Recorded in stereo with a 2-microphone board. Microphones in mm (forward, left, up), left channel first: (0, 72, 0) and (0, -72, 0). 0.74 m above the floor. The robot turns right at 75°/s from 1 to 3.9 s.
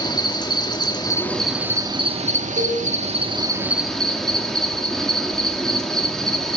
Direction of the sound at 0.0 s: 145° left.